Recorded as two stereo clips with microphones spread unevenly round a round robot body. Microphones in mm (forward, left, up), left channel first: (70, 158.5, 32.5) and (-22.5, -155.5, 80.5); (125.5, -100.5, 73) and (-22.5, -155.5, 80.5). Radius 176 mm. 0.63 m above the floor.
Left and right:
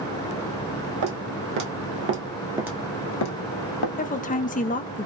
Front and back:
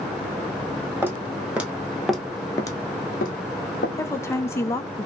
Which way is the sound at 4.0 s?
70° left.